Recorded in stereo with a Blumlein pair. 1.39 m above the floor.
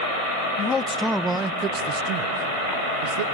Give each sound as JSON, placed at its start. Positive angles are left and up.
{"t": 0.6, "sound": "a man speaking", "azimuth_deg": 25, "distance_m": 0.7}